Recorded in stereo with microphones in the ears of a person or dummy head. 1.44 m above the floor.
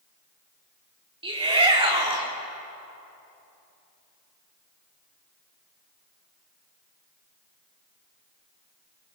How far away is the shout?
About 4 m.